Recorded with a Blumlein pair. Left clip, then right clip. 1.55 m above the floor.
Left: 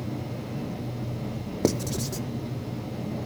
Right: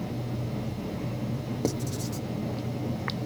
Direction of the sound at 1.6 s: 20° left.